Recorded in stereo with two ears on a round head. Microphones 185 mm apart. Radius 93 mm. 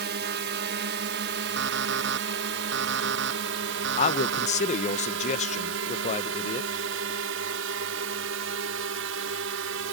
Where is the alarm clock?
65° right (ahead or behind).